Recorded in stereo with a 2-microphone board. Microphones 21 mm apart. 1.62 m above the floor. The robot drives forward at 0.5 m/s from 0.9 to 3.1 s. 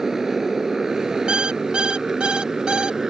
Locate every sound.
0.0 s a motorcycle: 15° right (ahead or behind); by 3.1 s 20° right (ahead or behind)
1.3 s an alarm clock: 55° right (ahead or behind); by 3.0 s 45° right (ahead or behind)